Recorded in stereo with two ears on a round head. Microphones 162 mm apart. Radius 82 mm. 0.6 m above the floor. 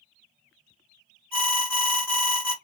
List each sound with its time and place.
1.3 s an alarm: 10° left (ahead or behind), 1.8 m